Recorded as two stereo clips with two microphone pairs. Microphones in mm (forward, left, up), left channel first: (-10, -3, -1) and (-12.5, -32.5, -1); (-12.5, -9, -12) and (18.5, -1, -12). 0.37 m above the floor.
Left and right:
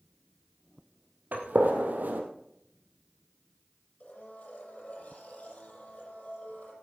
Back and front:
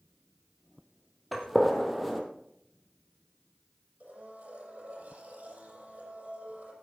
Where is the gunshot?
70° right, 2 m.